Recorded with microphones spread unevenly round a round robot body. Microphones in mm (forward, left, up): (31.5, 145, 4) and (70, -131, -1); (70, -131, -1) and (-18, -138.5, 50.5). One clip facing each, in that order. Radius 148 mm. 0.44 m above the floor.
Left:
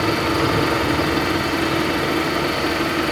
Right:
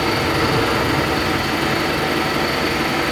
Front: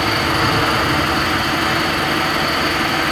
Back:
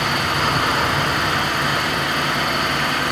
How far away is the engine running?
About 9 m.